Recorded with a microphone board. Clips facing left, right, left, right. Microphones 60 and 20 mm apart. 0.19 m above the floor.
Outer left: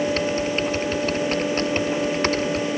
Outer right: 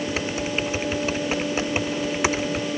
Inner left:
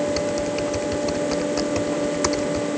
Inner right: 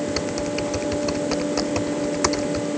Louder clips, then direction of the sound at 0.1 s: Outer left 4 dB, inner left 2 dB; 10° right (ahead or behind).